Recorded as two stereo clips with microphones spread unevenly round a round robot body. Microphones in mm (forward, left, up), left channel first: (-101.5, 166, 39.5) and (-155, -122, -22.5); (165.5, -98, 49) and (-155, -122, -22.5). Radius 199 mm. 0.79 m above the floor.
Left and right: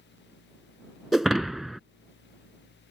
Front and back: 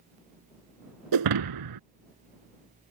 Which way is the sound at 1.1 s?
160° left.